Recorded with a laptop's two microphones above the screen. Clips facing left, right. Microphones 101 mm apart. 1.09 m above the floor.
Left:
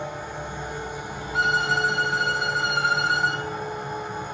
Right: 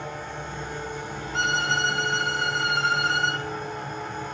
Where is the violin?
10° left (ahead or behind), 1.5 m.